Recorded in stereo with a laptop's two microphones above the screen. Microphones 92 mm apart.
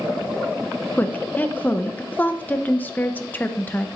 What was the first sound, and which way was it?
A woman speaking, 20° left (ahead or behind).